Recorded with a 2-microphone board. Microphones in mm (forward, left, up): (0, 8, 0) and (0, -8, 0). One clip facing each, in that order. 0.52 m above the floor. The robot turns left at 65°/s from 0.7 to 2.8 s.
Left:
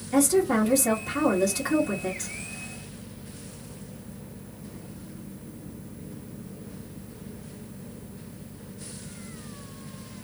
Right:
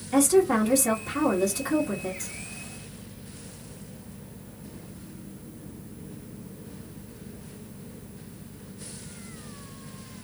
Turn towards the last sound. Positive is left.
turn(degrees=75)